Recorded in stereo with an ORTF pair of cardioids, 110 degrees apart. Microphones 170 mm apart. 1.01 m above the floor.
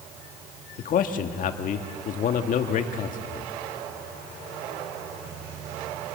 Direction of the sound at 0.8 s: 55° left.